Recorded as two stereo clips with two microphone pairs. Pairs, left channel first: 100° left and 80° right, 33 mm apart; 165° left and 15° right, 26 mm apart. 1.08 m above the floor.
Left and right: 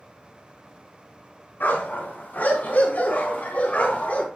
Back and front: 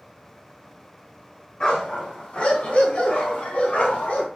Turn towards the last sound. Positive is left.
turn(degrees=140)